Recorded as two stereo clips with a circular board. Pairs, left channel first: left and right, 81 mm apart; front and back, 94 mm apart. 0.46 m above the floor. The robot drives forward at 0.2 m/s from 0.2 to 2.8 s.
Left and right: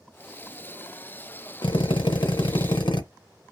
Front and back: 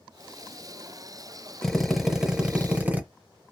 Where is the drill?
85° left, 0.6 m; by 3.0 s 105° left, 0.6 m.